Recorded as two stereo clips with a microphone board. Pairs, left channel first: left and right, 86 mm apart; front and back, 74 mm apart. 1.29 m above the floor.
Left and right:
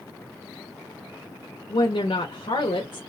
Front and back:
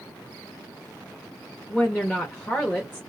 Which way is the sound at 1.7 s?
80° left.